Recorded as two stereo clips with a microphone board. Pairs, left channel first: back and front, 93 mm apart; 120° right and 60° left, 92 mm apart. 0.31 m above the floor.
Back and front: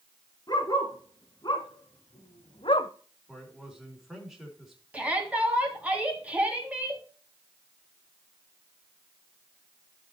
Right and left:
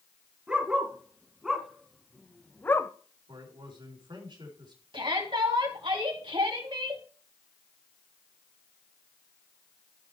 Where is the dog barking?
140° left, 2.5 m; by 2.9 s 175° right, 0.7 m.